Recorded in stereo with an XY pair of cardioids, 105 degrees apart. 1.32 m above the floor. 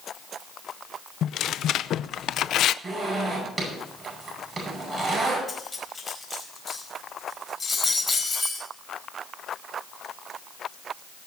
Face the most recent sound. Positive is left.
turn(degrees=25)